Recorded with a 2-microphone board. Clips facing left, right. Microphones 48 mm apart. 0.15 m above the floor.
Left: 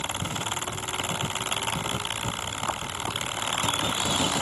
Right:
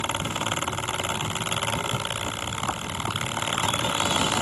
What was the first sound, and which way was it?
Only background noise.